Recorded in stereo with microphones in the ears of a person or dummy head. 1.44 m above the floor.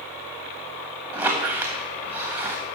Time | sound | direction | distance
1.1 | a squeak | 20° right (ahead or behind) | 0.9 m